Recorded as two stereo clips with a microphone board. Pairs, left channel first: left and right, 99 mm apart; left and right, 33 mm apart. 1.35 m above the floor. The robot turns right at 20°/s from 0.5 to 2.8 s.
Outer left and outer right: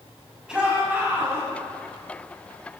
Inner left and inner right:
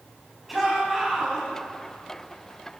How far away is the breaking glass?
I don't hear breaking glass.